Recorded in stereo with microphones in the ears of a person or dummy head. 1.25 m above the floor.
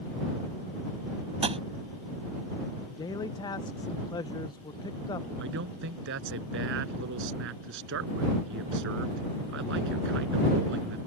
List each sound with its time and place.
1.4 s tapping: 30° right (ahead or behind)
2.9 s a man speaking: 25° left (ahead or behind)
5.4 s a man speaking: 65° right (ahead or behind)